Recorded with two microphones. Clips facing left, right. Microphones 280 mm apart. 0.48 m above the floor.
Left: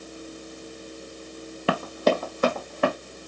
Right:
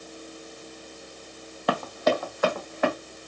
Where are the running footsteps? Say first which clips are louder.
Left 2 dB; 35° left (ahead or behind), 0.6 m.